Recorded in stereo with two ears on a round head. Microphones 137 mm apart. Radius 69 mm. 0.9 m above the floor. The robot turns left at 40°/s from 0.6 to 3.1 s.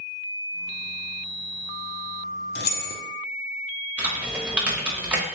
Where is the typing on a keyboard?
10° right (ahead or behind), 1.0 m.